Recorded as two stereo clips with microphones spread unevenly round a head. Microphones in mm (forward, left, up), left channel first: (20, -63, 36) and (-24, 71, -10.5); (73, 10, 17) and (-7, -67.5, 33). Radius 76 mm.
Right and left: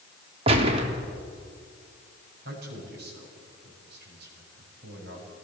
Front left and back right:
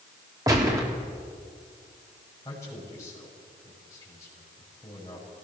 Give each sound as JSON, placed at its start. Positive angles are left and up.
{"t": 0.5, "sound": "a gunshot", "azimuth_deg": 155, "distance_m": 3.0}
{"t": 2.5, "sound": "a man speaking", "azimuth_deg": 115, "distance_m": 7.0}